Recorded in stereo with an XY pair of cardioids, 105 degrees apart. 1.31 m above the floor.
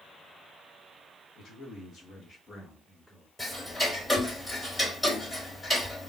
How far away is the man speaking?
About 1.2 m.